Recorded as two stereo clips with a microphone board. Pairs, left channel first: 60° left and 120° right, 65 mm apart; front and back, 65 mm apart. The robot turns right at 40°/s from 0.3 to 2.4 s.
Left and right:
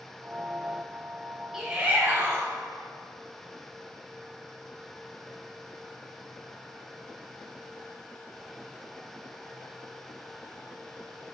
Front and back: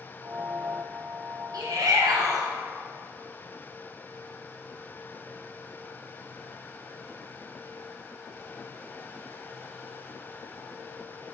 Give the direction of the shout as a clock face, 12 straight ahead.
7 o'clock.